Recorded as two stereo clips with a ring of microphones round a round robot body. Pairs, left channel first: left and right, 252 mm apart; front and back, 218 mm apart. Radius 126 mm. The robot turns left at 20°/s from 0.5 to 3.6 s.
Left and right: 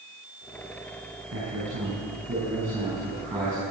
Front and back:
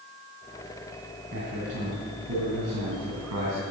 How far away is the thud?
No thud in this recording.